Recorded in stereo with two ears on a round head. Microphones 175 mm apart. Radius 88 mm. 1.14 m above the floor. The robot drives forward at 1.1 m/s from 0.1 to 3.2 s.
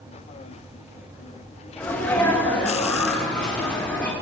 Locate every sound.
1.8 s a sneeze: 10° left (ahead or behind), 2.5 m; by 4.1 s 5° left (ahead or behind), 4 m